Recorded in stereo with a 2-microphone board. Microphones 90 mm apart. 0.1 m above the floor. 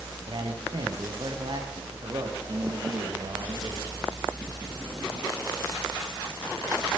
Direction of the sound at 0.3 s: 55° right (ahead or behind).